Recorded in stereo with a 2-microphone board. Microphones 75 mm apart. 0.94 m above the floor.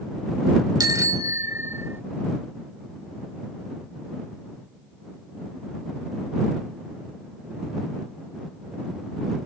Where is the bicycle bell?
55° right (ahead or behind); by 2.0 s 30° right (ahead or behind).